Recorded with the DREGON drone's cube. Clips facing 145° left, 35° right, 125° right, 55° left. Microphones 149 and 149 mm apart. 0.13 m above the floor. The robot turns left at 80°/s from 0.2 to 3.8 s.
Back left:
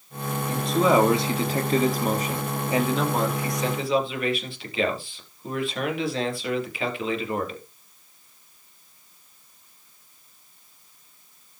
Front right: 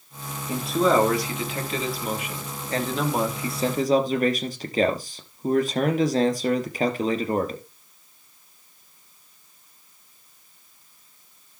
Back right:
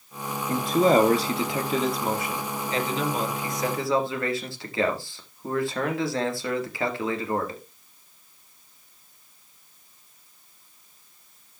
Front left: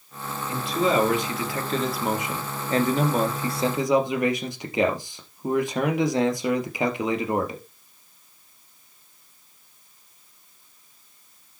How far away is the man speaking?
About 2.5 m.